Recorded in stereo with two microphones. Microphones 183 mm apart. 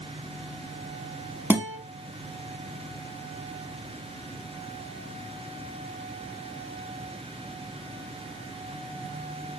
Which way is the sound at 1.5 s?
10° right (ahead or behind).